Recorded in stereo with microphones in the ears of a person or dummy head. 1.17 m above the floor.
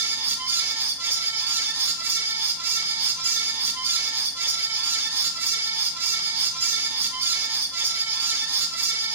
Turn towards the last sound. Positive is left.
turn(degrees=-15)  # may be behind; listen again after turning